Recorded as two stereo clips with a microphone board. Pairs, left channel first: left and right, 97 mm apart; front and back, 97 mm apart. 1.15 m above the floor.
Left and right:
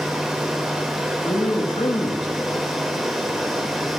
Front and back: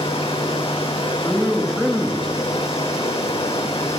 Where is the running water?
5° right, 2.5 m.